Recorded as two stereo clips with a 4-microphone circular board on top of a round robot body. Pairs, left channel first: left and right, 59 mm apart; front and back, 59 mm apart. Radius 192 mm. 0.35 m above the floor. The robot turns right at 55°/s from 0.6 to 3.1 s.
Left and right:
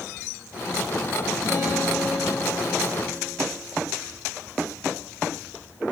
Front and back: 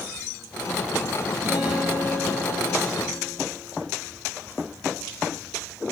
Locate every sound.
1.4 s a guitar: 130° left, 5.5 m; by 3.3 s 140° right, 5.5 m